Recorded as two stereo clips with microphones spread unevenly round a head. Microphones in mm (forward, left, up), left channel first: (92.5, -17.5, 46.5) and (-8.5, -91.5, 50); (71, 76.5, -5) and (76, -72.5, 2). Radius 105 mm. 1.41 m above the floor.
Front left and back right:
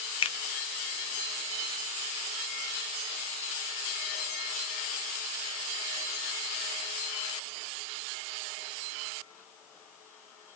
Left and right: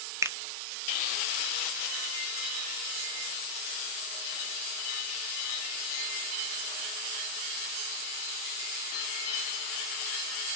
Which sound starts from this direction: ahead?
A finger snap, at 0.2 s.